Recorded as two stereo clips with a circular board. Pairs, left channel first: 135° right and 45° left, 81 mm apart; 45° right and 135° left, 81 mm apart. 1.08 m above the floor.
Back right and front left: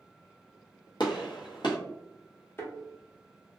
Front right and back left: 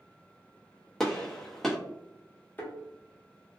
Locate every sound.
1.0 s a gunshot: 130° right, 0.7 m
2.6 s a thud: 100° right, 0.8 m